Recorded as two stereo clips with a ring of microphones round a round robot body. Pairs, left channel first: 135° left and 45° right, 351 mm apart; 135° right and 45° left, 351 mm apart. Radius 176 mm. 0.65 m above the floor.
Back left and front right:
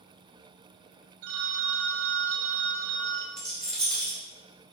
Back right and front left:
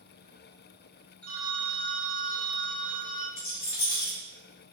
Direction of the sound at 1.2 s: 50° right.